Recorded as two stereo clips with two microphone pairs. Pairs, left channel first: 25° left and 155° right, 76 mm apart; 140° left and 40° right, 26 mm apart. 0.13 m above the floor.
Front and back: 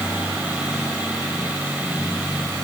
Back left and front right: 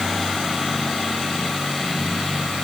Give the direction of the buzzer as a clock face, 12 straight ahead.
No buzzer in this recording.